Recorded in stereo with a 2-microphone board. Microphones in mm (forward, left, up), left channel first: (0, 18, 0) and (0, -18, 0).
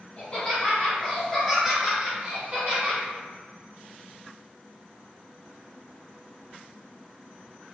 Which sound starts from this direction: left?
Laughter, at 0.2 s.